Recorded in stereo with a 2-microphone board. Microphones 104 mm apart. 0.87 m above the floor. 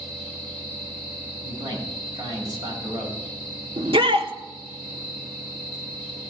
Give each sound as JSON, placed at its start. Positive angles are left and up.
{"t": 1.4, "sound": "a man speaking", "side_deg": -45, "distance_m": 6.0}
{"t": 3.8, "sound": "a shout", "side_deg": -70, "distance_m": 1.6}